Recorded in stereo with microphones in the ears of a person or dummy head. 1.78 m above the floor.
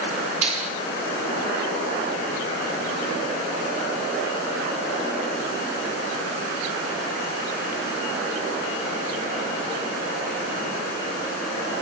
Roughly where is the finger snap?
Right.